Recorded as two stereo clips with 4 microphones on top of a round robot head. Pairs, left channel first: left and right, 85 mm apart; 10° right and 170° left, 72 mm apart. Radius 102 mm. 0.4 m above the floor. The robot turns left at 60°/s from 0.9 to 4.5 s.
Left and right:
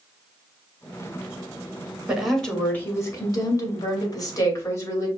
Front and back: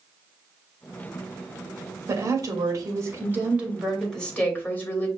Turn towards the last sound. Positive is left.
turn(degrees=45)